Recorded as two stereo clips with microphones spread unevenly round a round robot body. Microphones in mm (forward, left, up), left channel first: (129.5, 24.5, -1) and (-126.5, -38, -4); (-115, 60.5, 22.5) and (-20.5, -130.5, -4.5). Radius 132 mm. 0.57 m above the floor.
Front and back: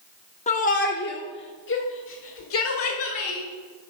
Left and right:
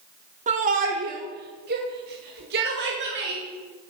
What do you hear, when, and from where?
0.5 s a shout: 40° right, 0.8 m; by 3.4 s 20° right, 2 m